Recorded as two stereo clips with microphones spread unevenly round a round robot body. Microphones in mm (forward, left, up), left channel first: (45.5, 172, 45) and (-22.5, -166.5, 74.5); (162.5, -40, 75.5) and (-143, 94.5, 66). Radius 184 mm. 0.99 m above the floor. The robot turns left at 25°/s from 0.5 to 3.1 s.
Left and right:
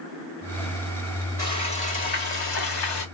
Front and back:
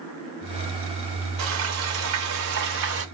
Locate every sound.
1.4 s frying: 155° left, 1.6 m; by 3.0 s 115° left, 1.6 m